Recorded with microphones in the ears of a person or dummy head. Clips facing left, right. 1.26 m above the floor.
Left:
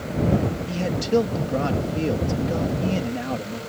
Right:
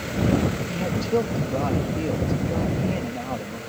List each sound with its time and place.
0.7 s a man speaking: 15° left (ahead or behind)